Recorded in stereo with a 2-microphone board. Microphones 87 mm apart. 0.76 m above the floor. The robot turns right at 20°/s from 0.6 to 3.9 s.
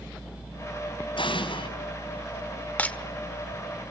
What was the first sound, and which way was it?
An explosion, 70° left (ahead or behind).